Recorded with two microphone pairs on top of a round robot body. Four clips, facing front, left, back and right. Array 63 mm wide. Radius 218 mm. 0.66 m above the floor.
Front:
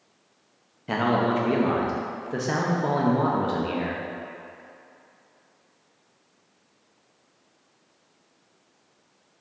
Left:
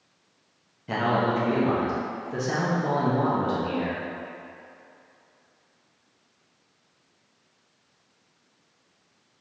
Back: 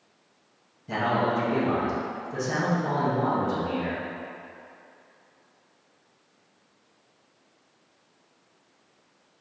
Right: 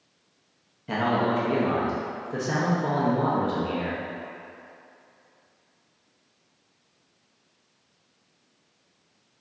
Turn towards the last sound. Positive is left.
turn(degrees=-5)